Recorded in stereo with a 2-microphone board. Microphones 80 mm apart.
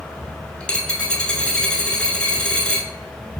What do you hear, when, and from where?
0.6 s a dropped coin: 15° left (ahead or behind), 0.5 m